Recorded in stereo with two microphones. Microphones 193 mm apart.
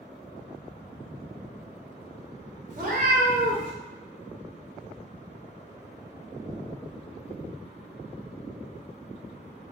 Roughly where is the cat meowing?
Right.